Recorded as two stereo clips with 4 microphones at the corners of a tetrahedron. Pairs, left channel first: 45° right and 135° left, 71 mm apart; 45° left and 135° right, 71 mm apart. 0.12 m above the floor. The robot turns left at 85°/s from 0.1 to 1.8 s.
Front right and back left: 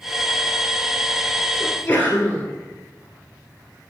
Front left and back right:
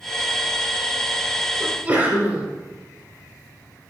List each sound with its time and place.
1.6 s a sneeze: 75° right, 1.2 m; by 2.5 s 95° right, 1.2 m